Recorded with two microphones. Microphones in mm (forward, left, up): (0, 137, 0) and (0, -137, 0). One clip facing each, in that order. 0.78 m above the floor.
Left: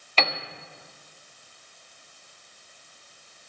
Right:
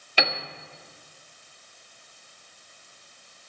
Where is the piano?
10° right (ahead or behind), 1.1 m.